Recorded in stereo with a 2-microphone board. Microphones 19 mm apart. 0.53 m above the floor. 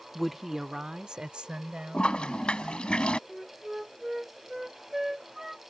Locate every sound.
0.1 s a woman speaking: 10° left (ahead or behind); by 2.9 s 65° right (ahead or behind)
1.9 s a toilet flushing: 75° left (ahead or behind)
3.3 s a flute: 15° right (ahead or behind)